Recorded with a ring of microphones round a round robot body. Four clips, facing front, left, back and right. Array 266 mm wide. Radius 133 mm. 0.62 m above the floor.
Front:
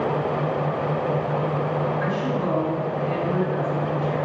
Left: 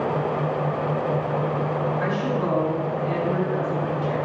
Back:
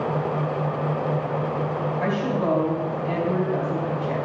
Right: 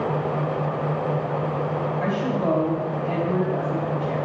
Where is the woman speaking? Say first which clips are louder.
Even, back 1 dB; 135° right, 4 m.